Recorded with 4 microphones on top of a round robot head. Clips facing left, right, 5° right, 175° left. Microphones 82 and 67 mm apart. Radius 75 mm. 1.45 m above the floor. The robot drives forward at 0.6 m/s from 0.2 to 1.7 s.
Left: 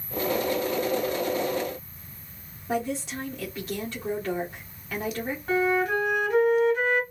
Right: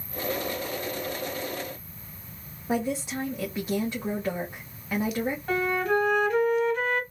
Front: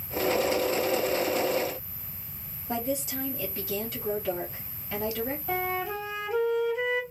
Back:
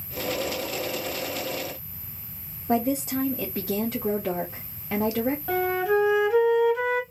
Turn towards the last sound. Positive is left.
turn(degrees=170)